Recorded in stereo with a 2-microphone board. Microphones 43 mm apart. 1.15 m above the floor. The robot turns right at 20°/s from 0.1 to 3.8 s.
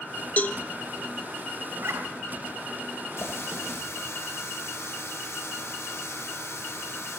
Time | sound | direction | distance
0.4 | a cowbell | 35° left (ahead or behind) | 1.1 m
1.7 | a zipper | 65° right (ahead or behind) | 3 m
3.2 | a running tap | 75° left (ahead or behind) | 3.5 m